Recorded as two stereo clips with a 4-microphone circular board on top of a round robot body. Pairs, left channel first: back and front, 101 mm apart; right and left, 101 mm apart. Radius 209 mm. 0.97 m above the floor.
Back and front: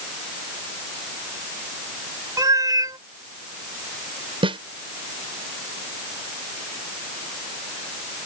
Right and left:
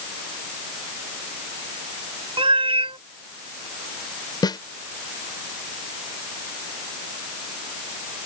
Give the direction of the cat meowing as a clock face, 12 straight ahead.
10 o'clock.